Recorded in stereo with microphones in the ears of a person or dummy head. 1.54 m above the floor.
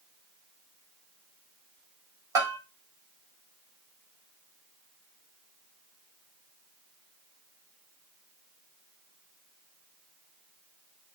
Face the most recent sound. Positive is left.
turn(degrees=-20)  # may be behind; listen again after turning